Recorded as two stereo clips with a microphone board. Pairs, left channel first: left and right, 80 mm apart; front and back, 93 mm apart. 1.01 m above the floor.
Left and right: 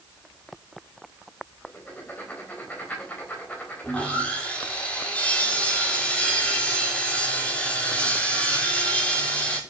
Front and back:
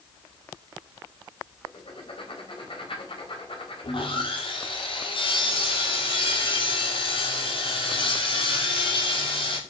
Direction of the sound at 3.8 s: 15° left.